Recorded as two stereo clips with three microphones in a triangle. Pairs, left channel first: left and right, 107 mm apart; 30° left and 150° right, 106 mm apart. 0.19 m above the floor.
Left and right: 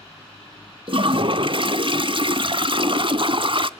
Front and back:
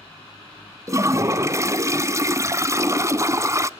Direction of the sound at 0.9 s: 95° right.